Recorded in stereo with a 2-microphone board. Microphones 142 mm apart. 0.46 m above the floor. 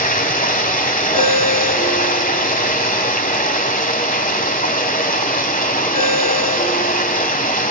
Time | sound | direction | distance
0.0 | running water | 80° left | 1.4 m
1.1 | a ringtone | 90° right | 9 m